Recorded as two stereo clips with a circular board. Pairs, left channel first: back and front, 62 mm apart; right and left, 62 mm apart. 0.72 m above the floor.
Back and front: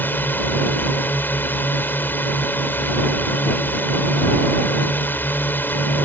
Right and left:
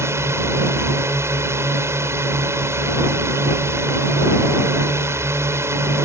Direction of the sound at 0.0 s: 125° left.